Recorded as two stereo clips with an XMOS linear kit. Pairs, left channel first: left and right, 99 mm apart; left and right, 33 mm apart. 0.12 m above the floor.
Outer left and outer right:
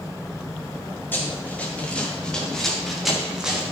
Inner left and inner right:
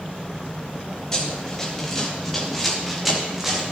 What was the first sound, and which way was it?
Running footsteps, 20° left (ahead or behind).